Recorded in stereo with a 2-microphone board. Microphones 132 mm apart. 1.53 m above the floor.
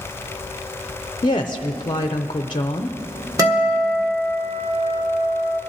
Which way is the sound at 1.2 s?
35° left (ahead or behind).